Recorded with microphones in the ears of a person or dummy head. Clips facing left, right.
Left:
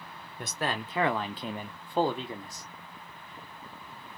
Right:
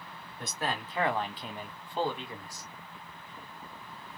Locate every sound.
0.4 s a man speaking: 45° left (ahead or behind), 1.0 m; by 2.7 s 15° left (ahead or behind), 0.6 m